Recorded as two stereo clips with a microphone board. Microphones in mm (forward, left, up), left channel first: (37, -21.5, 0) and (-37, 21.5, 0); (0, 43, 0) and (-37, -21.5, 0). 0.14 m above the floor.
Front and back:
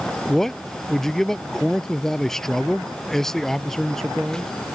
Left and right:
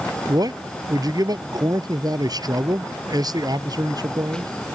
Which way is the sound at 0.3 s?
115° right.